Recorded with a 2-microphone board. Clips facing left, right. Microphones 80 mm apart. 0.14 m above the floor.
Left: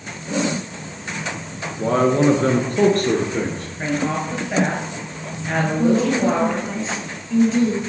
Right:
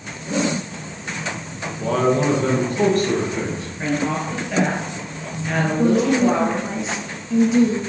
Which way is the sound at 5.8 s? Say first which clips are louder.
Right 1 dB; 15° right (ahead or behind).